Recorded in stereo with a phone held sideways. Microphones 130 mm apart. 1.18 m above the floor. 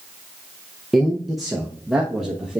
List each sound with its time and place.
0.9 s a man speaking: centre (ahead or behind), 0.7 m